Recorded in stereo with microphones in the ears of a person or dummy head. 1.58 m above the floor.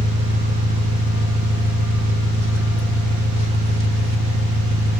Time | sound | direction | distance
0.0 | an engine running | 60° right (ahead or behind) | 1.6 m